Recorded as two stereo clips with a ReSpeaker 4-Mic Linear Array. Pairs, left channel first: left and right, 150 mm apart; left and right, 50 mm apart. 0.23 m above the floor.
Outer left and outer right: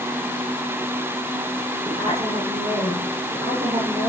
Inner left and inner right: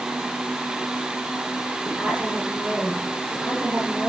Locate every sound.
1.9 s a woman speaking: 45° right (ahead or behind), 6.5 m